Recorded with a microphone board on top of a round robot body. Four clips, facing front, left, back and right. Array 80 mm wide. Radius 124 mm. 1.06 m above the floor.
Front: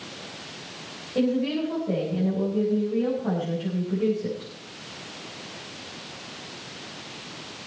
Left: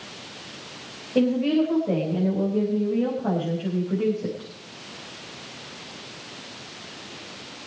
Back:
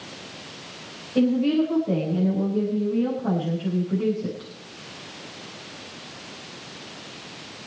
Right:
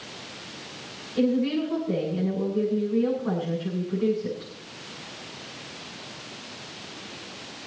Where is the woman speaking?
95° left, 6 m.